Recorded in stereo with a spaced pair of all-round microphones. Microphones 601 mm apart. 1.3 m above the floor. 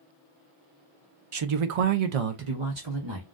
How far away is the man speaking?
About 0.5 m.